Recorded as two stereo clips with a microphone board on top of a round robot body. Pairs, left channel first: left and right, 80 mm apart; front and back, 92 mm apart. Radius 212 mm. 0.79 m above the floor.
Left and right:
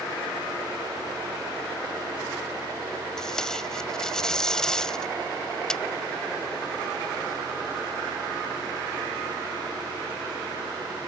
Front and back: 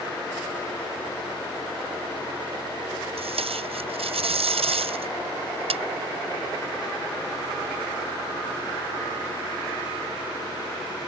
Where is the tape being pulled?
175° left.